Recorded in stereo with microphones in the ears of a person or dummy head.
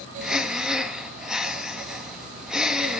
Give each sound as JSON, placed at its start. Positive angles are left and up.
{"t": 0.2, "sound": "breathing", "side_deg": -5, "distance_m": 0.9}